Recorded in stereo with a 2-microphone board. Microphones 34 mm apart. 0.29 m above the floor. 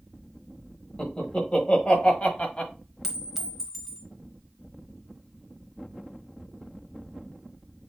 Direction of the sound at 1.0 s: 30° left (ahead or behind).